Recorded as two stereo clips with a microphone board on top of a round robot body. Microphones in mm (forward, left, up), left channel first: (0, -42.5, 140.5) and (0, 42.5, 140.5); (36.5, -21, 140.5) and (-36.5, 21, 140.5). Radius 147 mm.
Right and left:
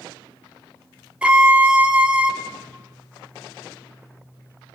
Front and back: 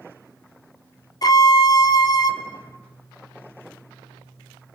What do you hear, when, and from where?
1.2 s a violin: 15° left, 1.9 m